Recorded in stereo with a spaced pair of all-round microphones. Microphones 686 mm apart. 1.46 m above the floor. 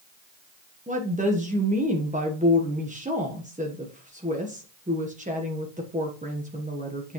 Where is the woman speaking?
10° right (ahead or behind), 1.0 m.